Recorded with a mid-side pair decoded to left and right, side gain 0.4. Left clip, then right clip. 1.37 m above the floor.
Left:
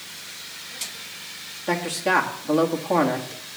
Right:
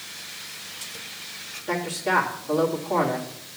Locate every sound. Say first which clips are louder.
1.7 s a man speaking: left 2 dB; 65° left, 2 m